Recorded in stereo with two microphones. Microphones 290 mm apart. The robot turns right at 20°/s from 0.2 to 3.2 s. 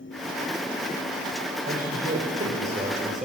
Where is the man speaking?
60° right, 4 m; by 3.3 s 30° right, 4 m.